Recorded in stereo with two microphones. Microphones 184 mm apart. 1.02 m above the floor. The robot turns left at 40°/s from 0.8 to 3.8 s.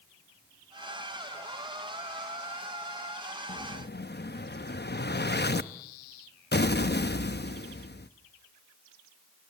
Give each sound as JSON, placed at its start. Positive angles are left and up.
{"t": 3.5, "sound": "an explosion", "side_deg": 65, "distance_m": 0.7}